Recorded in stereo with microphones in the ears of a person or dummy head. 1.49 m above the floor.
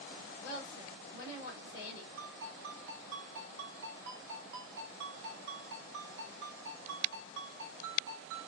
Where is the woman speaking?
85° left, 2.5 m.